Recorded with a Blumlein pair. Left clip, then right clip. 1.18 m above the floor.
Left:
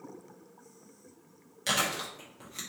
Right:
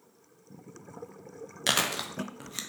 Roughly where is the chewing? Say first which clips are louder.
Right 2 dB; ahead right.